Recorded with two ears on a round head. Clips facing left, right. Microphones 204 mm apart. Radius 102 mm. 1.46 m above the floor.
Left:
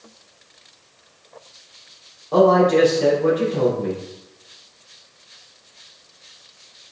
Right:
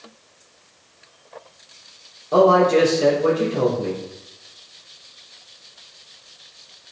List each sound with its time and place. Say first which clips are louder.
2.3 s a man speaking: even; 10° right (ahead or behind), 3.5 m